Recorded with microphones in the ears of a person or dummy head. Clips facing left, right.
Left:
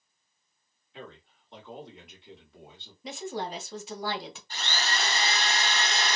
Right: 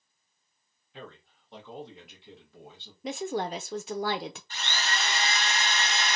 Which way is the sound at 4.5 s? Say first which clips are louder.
Left 3 dB; 30° left (ahead or behind).